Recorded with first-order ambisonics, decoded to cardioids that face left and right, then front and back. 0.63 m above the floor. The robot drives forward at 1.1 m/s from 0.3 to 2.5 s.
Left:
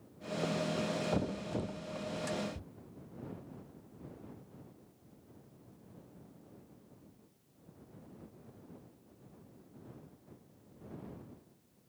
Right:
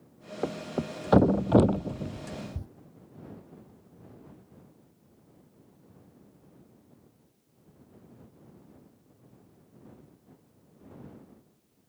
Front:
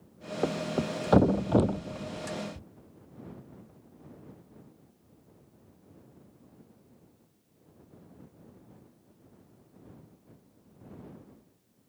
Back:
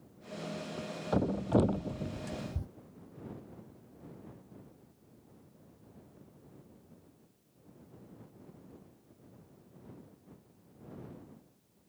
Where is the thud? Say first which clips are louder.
Right 2 dB, front 11 dB; 30° right; by 2.7 s 135° right.